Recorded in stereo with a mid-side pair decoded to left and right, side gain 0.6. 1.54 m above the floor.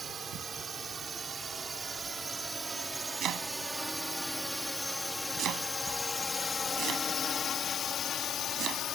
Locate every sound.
0.0 s a drone: 30° right; by 9.0 s 55° left
3.2 s chopping: 55° right